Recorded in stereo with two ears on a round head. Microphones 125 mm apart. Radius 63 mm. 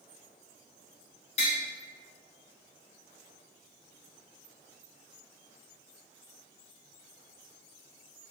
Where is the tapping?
55° left (ahead or behind), 0.8 m.